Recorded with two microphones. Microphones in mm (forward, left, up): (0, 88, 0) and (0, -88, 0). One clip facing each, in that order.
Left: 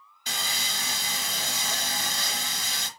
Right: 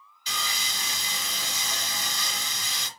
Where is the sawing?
50° left (ahead or behind), 0.9 m.